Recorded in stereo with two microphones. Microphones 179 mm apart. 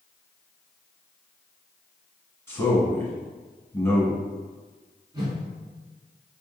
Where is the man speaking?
15° left (ahead or behind), 1.2 m.